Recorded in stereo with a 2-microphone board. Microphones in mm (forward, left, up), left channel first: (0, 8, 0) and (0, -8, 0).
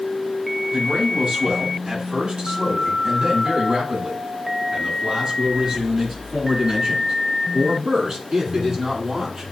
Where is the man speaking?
65° right (ahead or behind), 5.5 m; by 9.4 s 45° right (ahead or behind), 10 m.